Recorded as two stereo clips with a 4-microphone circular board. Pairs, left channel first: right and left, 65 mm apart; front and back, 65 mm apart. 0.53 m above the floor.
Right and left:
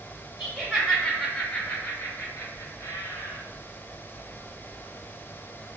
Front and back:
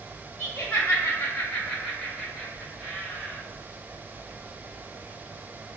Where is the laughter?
30° left, 0.9 m; by 3.4 s 115° right, 1.3 m.